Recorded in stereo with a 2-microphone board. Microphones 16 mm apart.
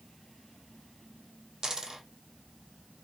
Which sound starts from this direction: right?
A dropped coin, at 1.6 s.